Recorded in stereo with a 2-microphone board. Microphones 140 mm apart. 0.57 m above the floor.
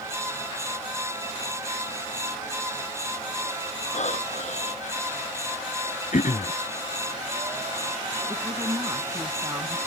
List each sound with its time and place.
3.9 s breathing: 55° left (ahead or behind)
6.1 s throat clearing: 70° left (ahead or behind)
8.3 s a woman speaking: 25° right (ahead or behind)